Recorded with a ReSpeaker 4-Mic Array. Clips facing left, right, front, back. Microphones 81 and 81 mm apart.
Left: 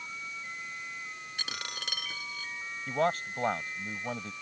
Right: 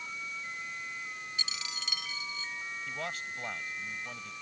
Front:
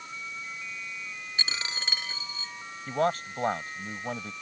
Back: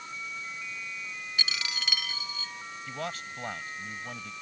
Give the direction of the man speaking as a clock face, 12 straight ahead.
10 o'clock.